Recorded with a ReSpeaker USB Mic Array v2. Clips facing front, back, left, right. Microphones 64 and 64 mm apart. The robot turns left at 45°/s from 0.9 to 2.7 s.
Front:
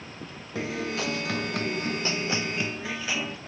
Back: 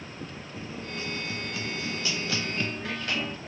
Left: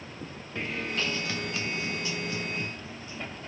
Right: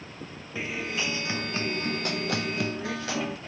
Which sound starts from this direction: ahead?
A guitar, at 0.6 s.